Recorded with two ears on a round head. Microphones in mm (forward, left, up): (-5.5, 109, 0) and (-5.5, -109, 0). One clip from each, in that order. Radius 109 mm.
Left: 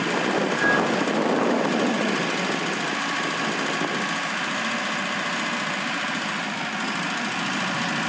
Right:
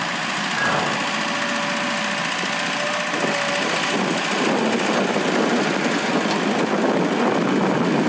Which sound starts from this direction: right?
A clink, at 0.6 s.